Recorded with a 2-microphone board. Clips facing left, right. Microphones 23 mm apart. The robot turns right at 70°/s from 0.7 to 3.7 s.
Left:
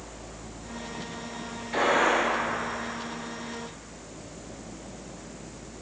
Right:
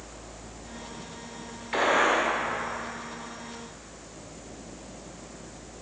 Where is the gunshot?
135° right, 1.6 m; by 2.2 s 100° right, 1.6 m.